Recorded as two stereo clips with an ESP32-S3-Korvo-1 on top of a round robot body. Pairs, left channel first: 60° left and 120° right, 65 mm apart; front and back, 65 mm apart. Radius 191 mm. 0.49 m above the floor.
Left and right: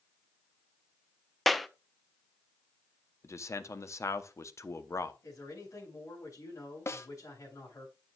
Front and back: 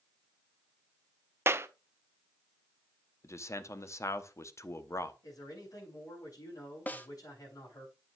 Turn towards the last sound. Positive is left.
turn(degrees=50)